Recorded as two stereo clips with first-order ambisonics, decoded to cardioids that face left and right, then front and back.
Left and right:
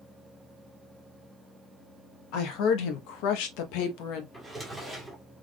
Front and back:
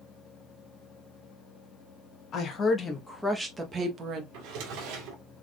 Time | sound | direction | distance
2.3 | a woman speaking | 55° left | 1.3 m
4.3 | a drawer | 175° left | 1.4 m